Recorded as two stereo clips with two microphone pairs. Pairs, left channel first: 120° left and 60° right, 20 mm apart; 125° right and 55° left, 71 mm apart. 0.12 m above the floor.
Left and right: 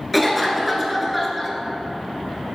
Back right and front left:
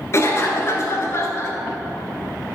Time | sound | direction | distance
0.1 | a cough | 140° right | 1.4 m